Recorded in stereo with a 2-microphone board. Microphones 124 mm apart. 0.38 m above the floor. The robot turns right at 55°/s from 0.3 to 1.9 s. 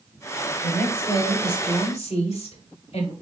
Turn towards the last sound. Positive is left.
turn(degrees=95)